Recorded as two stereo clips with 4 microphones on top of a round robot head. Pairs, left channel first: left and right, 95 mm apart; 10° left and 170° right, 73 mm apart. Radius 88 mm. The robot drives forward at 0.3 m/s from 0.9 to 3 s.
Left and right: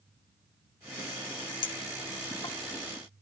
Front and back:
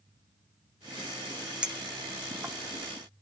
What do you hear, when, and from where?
1.6 s a clink: 110° left, 0.7 m; by 2.5 s 130° left, 0.9 m